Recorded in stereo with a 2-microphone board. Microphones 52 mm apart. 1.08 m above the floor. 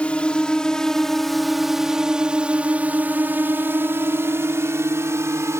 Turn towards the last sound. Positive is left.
turn(degrees=-70)  # may be behind; listen again after turning